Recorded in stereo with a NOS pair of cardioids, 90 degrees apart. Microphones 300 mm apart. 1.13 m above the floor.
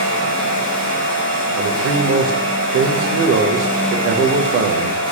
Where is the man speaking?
50° right, 0.5 m.